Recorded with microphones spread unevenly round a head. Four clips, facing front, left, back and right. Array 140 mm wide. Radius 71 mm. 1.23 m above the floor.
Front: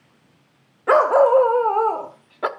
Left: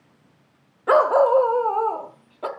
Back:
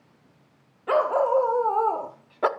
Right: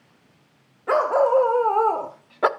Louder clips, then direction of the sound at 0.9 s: Left 3 dB, front 7 dB; 25° left.